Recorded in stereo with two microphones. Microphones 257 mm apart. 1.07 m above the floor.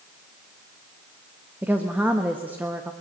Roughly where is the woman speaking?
Centre.